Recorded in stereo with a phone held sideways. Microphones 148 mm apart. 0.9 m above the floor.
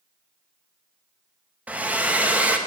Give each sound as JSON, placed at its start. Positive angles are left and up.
{"t": 1.7, "sound": "a hair dryer", "side_deg": -10, "distance_m": 0.7}